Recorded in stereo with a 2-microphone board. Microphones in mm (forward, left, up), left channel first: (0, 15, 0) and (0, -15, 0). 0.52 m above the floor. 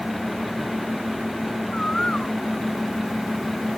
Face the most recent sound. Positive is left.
turn(degrees=30)  # may be behind; listen again after turning